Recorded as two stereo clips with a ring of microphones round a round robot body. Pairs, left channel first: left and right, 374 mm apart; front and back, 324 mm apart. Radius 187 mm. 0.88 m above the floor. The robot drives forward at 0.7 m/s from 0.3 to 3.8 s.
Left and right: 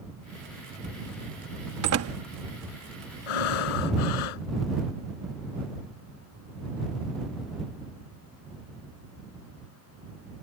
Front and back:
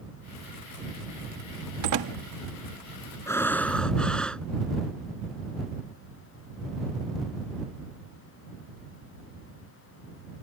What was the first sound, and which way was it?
A door slam, 140° right.